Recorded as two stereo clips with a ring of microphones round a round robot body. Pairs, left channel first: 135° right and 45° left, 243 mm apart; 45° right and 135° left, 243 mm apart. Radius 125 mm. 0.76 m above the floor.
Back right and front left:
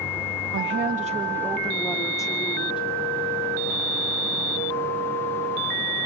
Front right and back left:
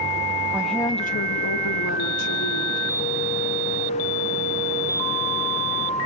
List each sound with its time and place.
0.5 s a woman speaking: 55° left, 1.3 m; by 2.9 s 65° right, 3.5 m